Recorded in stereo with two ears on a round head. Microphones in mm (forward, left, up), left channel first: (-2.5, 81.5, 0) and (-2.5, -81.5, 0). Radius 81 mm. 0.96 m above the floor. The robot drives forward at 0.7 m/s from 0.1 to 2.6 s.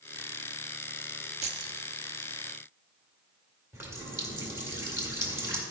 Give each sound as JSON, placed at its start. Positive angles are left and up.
{"t": 1.4, "sound": "keys jangling", "side_deg": -40, "distance_m": 0.9}
{"t": 3.7, "sound": "a running tap", "side_deg": -15, "distance_m": 1.9}